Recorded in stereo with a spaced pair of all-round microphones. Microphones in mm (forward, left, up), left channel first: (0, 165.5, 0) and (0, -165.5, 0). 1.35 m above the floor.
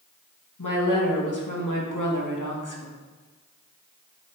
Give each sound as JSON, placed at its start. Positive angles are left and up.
{"t": 0.6, "sound": "a woman speaking", "side_deg": 65, "distance_m": 2.5}